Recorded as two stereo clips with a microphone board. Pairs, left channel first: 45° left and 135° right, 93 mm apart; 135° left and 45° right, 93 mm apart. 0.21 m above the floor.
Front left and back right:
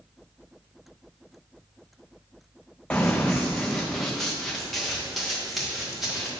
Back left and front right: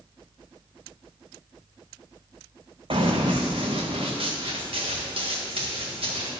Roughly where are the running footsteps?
Ahead right.